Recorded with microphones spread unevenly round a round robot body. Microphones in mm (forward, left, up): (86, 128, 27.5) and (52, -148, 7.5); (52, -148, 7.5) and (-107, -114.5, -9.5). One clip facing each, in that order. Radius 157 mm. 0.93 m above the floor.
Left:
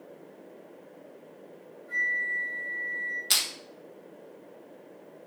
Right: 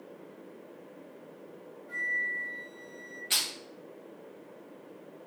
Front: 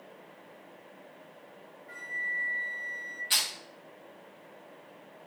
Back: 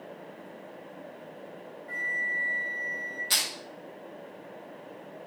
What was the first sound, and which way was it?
A flute, 155° left.